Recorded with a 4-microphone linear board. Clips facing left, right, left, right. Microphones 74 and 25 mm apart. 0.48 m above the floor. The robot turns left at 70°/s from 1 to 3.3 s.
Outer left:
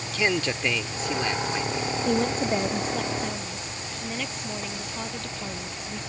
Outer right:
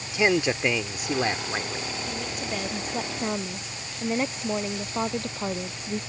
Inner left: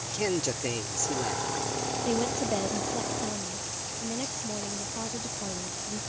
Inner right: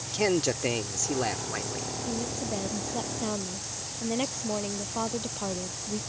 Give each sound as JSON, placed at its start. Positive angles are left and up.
{"t": 0.1, "sound": "a man speaking", "azimuth_deg": -30}
{"t": 2.0, "sound": "a woman speaking", "azimuth_deg": 55}